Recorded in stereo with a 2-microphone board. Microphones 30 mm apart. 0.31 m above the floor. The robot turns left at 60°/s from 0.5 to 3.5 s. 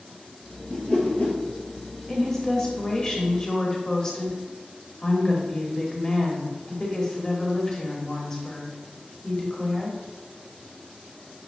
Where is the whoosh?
155° left, 0.9 m; by 1.4 s 115° left, 0.9 m.